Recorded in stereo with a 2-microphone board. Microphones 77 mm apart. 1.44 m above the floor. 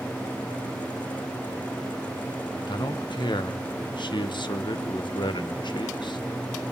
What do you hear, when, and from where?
2.7 s a man speaking: 80° left, 1.4 m